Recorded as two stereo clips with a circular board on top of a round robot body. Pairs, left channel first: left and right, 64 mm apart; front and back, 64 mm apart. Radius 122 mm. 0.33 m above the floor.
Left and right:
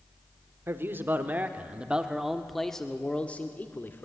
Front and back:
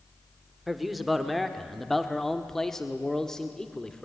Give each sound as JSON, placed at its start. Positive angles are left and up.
{"t": 0.7, "sound": "a man speaking", "azimuth_deg": -95, "distance_m": 1.7}